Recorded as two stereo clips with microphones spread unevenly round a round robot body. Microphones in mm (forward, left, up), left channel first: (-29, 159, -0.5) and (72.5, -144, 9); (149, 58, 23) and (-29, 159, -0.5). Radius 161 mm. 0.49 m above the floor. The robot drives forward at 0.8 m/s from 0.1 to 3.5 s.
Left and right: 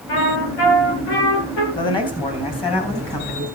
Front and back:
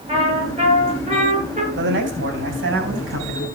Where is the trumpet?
85° left, 7 m; by 1.7 s 95° left, 7 m.